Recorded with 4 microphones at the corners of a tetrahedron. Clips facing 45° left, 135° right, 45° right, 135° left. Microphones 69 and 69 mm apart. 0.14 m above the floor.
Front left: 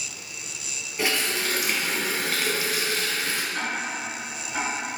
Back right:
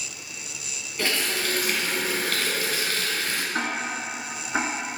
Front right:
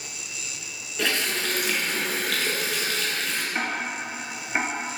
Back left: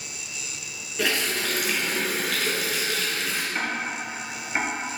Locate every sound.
1.0 s a running tap: 60° left, 0.7 m
3.5 s ticking: 120° right, 0.6 m